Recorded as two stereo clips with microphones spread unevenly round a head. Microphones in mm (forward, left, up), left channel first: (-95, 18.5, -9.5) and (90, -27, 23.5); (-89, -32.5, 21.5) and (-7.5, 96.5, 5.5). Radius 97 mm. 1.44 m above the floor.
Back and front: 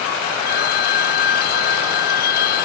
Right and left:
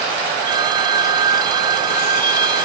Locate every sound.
0.4 s a phone ringing: 120° left